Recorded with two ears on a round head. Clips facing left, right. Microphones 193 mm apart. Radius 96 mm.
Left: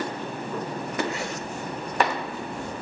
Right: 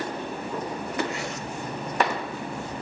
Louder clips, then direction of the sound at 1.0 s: Left 1 dB; 70° left (ahead or behind).